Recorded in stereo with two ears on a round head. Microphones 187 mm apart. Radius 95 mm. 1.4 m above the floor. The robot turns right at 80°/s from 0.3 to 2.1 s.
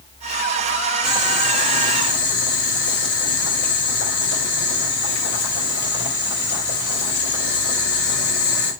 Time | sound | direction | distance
1.0 | boiling | 25° right | 5.5 m